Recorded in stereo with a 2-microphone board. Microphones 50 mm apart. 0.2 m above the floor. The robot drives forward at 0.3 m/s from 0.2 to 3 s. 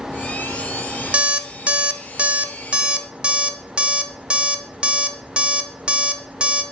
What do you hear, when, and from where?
1.1 s an alarm clock: 25° right (ahead or behind), 0.5 m; by 6.6 s 20° right (ahead or behind), 0.6 m